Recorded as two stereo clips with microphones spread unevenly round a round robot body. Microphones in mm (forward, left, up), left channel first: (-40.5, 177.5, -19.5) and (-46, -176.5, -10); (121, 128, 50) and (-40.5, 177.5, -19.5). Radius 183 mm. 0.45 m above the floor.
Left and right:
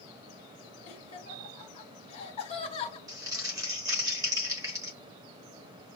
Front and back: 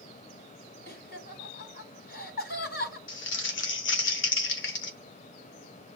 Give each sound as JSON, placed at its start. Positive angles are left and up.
{"t": 0.9, "sound": "laughter", "azimuth_deg": 20, "distance_m": 1.8}
{"t": 3.1, "sound": "crumpling", "azimuth_deg": -10, "distance_m": 0.9}